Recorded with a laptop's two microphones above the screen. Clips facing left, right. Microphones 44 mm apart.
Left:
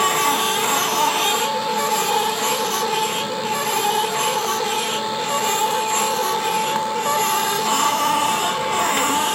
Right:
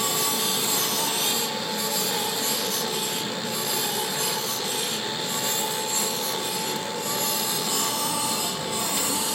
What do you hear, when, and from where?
0.0 s a machine running: 50° left (ahead or behind), 1.8 m